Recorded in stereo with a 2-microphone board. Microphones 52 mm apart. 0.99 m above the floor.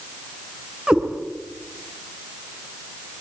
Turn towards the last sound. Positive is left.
turn(degrees=-15)  # may be behind; listen again after turning